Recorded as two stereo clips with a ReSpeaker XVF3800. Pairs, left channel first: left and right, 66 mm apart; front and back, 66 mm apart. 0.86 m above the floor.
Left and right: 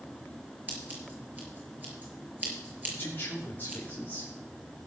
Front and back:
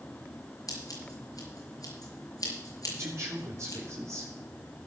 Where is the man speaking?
145° left, 2 m.